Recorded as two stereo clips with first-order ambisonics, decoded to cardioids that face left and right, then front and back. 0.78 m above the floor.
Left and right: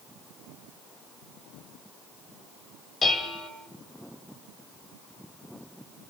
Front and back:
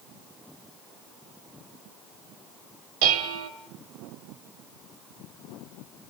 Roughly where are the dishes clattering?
Behind.